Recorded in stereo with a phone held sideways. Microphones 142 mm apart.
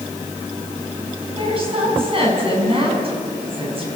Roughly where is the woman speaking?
Right.